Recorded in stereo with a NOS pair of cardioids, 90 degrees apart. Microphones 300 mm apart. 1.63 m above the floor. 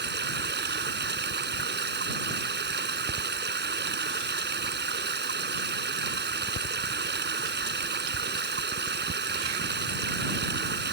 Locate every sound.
0.0 s running water: 35° right